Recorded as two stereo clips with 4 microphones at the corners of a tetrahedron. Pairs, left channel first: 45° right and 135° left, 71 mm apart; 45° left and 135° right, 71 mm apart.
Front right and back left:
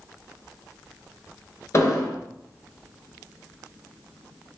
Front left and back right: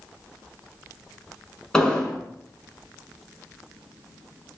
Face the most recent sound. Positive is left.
turn(degrees=-30)